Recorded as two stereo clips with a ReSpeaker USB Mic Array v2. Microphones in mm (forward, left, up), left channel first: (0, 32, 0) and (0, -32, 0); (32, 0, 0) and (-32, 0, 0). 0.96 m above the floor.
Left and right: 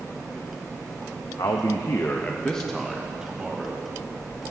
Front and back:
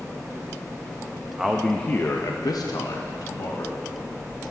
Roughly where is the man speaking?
Left.